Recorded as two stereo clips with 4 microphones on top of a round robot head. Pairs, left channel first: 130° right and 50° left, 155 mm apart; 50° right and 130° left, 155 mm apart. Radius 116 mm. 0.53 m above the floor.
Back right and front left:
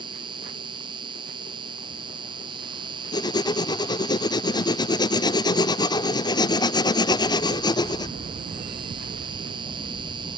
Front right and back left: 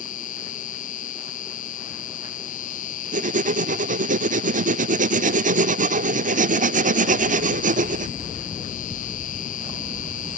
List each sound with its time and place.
0.0 s an insect: 10° right
3.1 s writing: 165° left